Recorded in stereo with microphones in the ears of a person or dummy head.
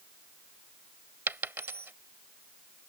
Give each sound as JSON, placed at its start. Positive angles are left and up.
{"t": 1.3, "sound": "a dropped coin", "side_deg": -5}